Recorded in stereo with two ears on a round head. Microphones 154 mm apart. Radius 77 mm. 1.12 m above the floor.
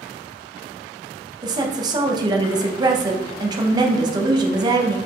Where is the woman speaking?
25° right (ahead or behind), 0.6 m.